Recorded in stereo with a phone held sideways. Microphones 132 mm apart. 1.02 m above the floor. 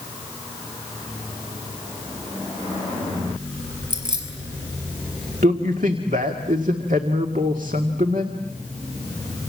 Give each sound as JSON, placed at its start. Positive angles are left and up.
{"t": 3.9, "sound": "keys jangling", "side_deg": -35, "distance_m": 5.5}
{"t": 5.4, "sound": "a man speaking", "side_deg": -85, "distance_m": 1.9}